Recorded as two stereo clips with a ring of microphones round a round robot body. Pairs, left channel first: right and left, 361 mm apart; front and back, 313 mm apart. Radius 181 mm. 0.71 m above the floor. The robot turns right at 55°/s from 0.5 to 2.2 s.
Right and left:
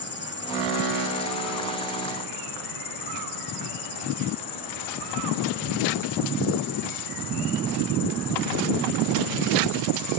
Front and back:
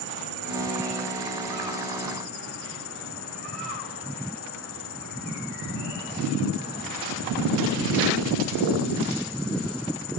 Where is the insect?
150° right; by 10.2 s 60° right.